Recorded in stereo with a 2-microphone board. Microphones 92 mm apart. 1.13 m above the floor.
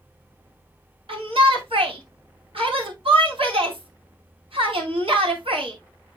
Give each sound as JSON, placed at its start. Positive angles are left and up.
{"t": 1.1, "sound": "a shout", "side_deg": -80, "distance_m": 4.0}